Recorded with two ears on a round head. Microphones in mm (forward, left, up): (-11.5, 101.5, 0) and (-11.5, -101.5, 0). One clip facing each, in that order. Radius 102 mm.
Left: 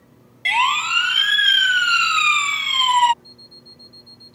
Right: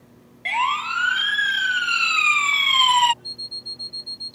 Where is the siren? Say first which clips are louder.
Left 3 dB; 50° left (ahead or behind); by 3.1 s 15° right (ahead or behind).